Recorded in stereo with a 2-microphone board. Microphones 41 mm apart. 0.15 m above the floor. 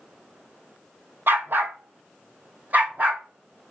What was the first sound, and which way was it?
A dog barking, 60° right (ahead or behind).